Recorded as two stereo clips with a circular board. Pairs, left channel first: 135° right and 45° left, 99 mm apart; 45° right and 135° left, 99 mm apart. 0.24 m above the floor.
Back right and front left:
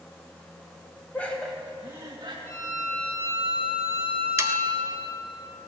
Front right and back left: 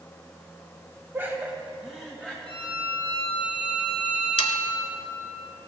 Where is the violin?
165° left, 4 m.